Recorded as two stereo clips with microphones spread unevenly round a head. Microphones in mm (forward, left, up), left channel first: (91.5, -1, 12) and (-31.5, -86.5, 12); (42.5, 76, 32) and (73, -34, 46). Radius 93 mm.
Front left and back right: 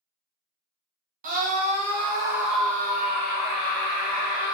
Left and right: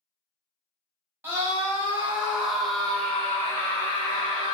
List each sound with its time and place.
1.2 s a scream: 150° right, 1.0 m; by 4.5 s 35° left, 1.3 m